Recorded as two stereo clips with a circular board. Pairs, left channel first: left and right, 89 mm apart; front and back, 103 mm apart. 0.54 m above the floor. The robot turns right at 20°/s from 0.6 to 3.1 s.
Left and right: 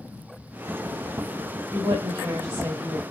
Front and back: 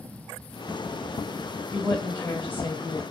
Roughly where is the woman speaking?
Ahead right.